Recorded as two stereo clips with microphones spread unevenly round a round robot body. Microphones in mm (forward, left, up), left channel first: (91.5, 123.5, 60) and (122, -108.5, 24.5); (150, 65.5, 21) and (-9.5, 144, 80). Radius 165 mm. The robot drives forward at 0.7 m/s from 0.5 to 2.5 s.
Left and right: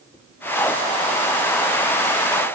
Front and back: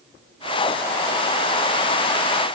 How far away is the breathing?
I don't hear breathing.